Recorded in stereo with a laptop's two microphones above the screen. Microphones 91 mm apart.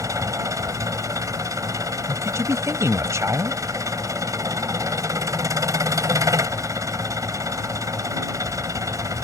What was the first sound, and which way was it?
An engine running, 35° right (ahead or behind).